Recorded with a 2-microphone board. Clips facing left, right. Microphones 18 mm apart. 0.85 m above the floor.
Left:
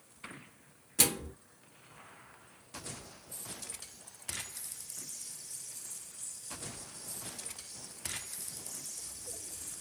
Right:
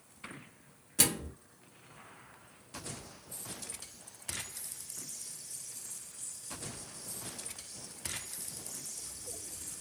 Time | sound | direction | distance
1.0 | a microwave | centre (ahead or behind) | 0.9 m